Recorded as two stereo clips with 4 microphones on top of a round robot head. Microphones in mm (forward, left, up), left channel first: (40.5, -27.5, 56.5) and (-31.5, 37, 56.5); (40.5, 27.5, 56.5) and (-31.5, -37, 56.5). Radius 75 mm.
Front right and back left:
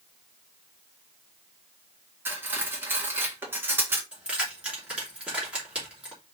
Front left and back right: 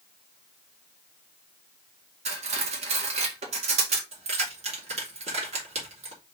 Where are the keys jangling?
145° right, 3 m.